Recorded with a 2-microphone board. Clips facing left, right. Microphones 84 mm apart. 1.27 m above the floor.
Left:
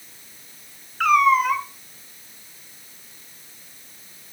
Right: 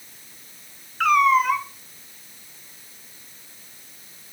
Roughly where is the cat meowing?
Centre.